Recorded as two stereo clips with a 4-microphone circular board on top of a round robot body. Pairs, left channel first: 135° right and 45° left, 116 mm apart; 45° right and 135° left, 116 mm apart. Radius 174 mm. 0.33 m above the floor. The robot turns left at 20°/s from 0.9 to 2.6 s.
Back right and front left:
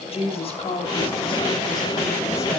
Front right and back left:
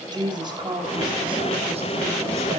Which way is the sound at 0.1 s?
Straight behind.